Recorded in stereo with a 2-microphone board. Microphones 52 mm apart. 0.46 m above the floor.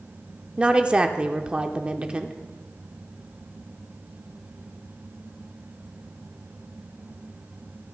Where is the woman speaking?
20° right (ahead or behind), 0.7 m.